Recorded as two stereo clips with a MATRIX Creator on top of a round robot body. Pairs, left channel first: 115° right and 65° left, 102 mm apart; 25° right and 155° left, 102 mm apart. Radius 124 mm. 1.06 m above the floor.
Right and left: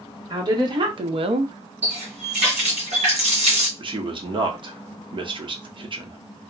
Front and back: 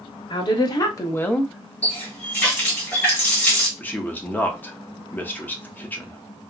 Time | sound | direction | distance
0.3 | a woman speaking | 20° left | 1.2 m
1.8 | a running tap | 50° left | 1.1 m
3.8 | a man speaking | 45° left | 0.8 m